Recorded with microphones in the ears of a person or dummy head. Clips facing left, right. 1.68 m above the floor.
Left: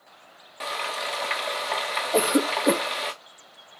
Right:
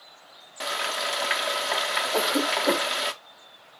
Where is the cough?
45° left (ahead or behind), 2 m.